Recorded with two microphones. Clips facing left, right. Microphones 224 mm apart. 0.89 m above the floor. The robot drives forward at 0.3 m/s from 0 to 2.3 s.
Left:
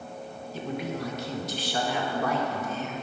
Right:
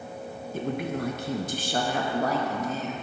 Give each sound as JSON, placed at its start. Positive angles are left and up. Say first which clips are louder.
{"t": 0.5, "sound": "a woman speaking", "louder": "right 3 dB", "side_deg": -50, "distance_m": 0.5}